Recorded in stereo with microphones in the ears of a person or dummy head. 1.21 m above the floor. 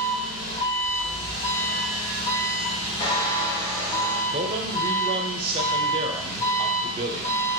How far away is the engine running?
About 1.9 m.